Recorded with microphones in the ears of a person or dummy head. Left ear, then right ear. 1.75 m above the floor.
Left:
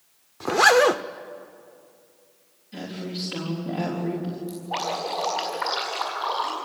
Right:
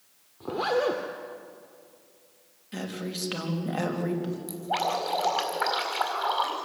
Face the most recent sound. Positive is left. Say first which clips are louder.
# right 1 dB
turn(degrees=-20)  # may be behind; listen again after turning